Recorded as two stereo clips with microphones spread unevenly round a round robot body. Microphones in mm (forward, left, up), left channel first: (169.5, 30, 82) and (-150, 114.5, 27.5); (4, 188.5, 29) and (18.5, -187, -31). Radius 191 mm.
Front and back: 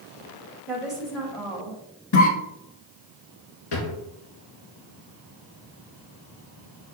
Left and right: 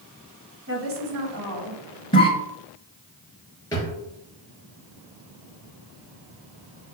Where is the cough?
10° left, 1.7 m.